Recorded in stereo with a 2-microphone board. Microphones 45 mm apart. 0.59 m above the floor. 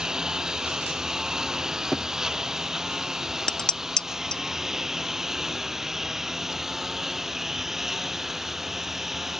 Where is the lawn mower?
15° right (ahead or behind); by 9.4 s 5° right (ahead or behind).